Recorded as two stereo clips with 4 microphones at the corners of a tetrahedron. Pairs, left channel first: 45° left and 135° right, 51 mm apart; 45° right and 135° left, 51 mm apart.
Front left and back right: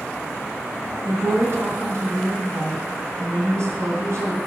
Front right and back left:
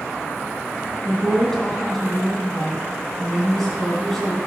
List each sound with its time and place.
1.1 s a woman speaking: 125° right, 2.5 m